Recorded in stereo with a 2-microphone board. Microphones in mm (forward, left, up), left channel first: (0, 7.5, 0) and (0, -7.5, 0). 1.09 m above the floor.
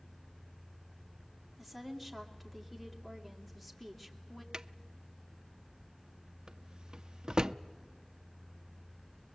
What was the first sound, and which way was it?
A woman speaking, 10° left (ahead or behind).